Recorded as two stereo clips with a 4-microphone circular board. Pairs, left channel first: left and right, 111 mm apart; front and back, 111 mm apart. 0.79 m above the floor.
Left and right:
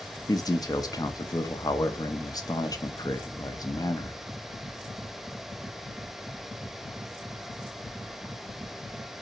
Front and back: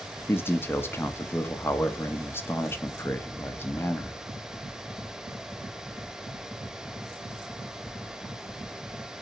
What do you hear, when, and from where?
0.3 s a man speaking: 60° left, 0.5 m